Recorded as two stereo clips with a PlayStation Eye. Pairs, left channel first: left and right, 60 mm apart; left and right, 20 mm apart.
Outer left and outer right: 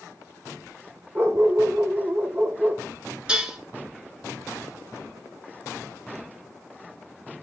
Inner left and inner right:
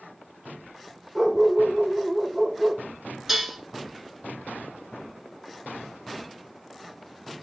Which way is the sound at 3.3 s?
15° right (ahead or behind).